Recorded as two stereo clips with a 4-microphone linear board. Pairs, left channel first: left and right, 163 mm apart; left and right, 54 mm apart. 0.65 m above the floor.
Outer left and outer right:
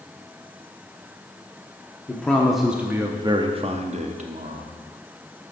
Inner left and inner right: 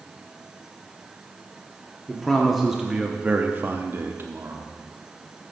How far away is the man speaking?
About 0.9 m.